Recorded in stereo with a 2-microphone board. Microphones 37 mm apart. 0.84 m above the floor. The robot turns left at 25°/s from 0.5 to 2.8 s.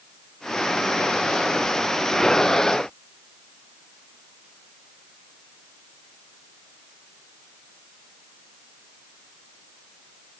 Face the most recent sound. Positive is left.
No sound to turn to.